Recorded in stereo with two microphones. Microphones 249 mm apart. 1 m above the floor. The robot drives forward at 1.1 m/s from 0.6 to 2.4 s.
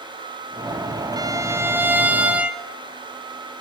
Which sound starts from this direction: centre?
A violin, at 1.2 s.